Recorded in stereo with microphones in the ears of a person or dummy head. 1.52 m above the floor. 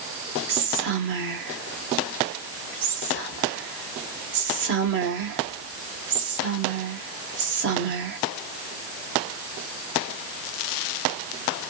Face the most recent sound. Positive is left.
turn(degrees=-60)  # may be behind; listen again after turning